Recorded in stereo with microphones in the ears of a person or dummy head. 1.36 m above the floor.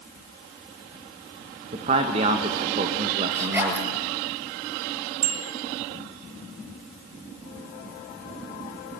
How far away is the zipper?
About 9 m.